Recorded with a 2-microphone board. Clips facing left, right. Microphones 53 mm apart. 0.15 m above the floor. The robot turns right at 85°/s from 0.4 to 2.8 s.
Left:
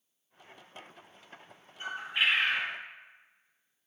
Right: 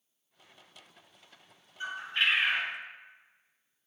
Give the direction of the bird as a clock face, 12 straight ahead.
7 o'clock.